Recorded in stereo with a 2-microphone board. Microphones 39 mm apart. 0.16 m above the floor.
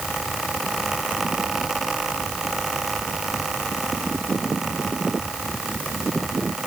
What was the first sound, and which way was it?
Only background noise.